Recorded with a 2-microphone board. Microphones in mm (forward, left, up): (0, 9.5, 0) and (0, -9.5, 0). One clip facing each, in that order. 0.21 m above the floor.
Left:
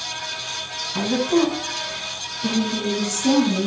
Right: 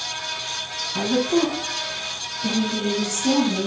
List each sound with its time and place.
0.9 s a woman speaking: 15° left (ahead or behind), 1.4 m; by 3.7 s 60° left (ahead or behind), 1.9 m